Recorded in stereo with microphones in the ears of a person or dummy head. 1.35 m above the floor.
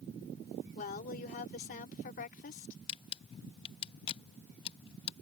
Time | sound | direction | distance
0.8 | a woman speaking | 40° left (ahead or behind) | ?
2.9 | a camera shutter | 30° left (ahead or behind) | ?